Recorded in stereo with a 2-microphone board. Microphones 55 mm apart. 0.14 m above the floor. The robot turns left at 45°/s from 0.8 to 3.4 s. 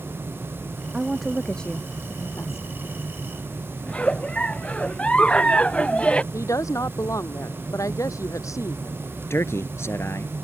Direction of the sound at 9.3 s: 55° left (ahead or behind).